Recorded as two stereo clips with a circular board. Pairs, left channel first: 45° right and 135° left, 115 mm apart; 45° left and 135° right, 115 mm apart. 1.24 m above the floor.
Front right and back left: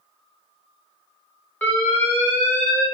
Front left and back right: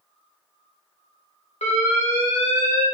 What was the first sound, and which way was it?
An alarm, 30° left.